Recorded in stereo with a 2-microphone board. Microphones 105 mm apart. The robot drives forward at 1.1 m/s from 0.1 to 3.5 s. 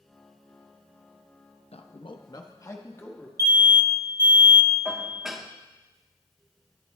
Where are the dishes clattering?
Centre (ahead or behind), 1.1 m.